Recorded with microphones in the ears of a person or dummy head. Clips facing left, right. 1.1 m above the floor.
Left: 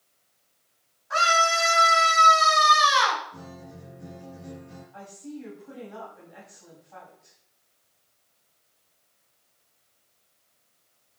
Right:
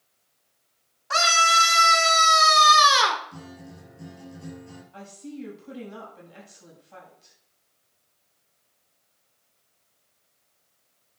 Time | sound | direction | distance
1.1 | a scream | 80° right | 3 m
3.3 | a guitar | 80° right | 6.5 m
4.9 | a woman speaking | 45° right (ahead or behind) | 7.5 m